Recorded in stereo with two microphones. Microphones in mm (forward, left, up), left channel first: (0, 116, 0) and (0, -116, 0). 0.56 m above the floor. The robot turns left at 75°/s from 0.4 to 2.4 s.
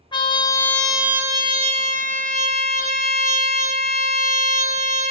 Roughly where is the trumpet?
Ahead left.